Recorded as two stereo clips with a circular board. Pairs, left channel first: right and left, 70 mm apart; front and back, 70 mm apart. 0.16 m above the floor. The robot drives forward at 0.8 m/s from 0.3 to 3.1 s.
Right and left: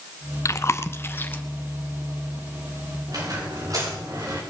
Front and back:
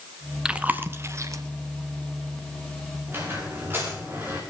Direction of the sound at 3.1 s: 120° left.